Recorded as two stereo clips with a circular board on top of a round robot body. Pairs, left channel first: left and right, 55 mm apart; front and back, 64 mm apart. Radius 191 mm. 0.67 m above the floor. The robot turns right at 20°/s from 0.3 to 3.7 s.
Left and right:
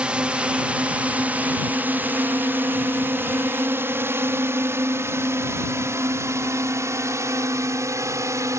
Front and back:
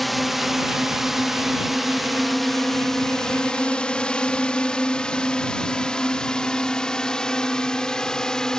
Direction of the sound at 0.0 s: 90° right.